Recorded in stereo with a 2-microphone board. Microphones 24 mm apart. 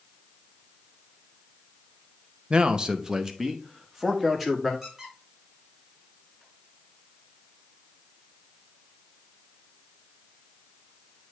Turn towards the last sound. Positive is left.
turn(degrees=-15)  # may be behind; listen again after turning